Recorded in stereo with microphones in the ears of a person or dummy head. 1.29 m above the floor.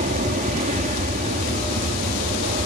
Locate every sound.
0.0 s an aircraft: 40° right (ahead or behind)